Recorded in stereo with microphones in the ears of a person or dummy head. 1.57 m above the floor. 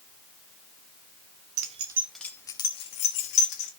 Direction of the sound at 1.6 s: 40° right (ahead or behind).